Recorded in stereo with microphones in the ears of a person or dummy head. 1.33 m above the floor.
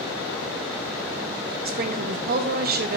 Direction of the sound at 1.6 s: 45° right (ahead or behind).